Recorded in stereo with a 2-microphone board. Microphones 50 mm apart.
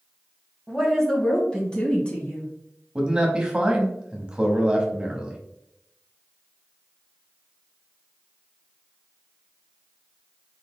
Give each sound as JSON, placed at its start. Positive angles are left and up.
{"t": 0.7, "sound": "a woman speaking", "side_deg": 5, "distance_m": 1.4}
{"t": 3.0, "sound": "a man speaking", "side_deg": -20, "distance_m": 1.1}